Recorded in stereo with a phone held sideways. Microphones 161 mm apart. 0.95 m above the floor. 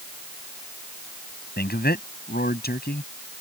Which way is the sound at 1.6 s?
85° left.